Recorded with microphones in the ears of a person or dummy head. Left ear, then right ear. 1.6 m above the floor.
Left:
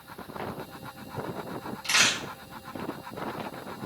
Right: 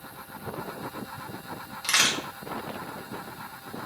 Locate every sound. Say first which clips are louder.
1.8 s a crack: even; 50° right (ahead or behind), 0.9 m